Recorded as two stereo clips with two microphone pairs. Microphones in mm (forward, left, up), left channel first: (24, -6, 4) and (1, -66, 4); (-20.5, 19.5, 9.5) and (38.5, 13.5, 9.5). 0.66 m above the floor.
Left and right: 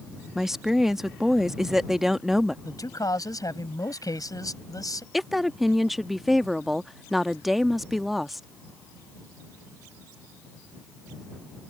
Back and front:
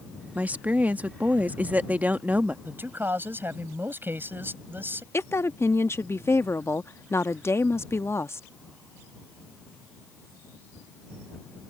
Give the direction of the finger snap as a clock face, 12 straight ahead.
No finger snap in this recording.